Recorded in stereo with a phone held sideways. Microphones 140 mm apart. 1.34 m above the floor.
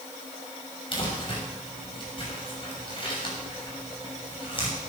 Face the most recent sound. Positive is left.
turn(degrees=40)  # may be behind; listen again after turning